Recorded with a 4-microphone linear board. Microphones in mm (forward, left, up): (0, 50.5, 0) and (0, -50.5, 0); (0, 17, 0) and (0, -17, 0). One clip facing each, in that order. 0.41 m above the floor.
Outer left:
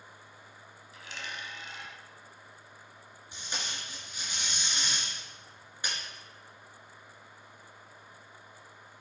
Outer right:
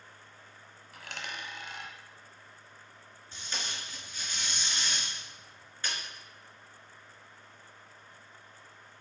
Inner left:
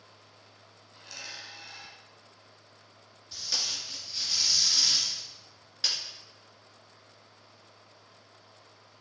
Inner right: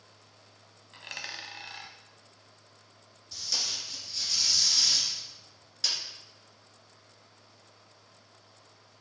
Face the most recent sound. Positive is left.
turn(degrees=20)  # may be behind; listen again after turning